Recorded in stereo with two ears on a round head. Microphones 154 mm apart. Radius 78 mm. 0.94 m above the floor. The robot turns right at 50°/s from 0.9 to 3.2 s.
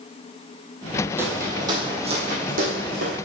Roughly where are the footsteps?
Centre.